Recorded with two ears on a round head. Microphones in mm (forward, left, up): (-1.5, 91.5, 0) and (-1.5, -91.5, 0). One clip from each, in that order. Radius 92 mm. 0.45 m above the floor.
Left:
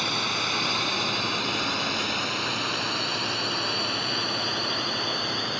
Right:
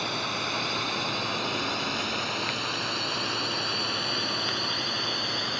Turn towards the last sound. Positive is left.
turn(degrees=-5)  # may be behind; listen again after turning